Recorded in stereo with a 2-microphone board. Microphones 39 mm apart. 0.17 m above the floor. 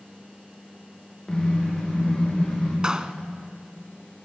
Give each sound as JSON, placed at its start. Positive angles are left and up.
{"t": 1.3, "sound": "a car horn", "side_deg": 20, "distance_m": 9.0}
{"t": 2.8, "sound": "a clap", "side_deg": -20, "distance_m": 1.1}